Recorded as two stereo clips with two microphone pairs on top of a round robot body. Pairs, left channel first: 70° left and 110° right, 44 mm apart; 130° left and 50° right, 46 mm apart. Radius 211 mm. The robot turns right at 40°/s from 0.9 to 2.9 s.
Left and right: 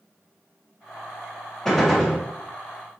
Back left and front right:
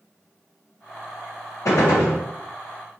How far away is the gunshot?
About 0.6 m.